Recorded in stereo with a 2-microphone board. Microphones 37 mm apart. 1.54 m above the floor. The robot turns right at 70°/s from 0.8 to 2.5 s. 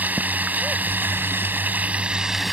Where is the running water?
125° right; by 2.5 s 5° right.